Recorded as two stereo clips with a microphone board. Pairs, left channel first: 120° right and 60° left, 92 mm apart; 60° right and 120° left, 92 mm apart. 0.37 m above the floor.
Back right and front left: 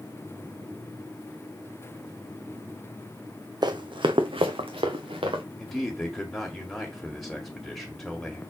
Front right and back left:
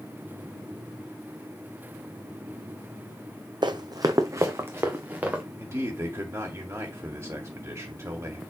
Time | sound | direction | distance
3.6 | running footsteps | 95° left | 0.9 m
5.6 | a man speaking | 155° left | 1.7 m